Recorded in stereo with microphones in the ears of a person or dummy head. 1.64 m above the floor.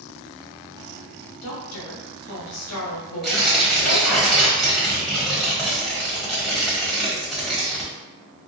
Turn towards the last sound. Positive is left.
turn(degrees=0)  # may be behind; listen again after turning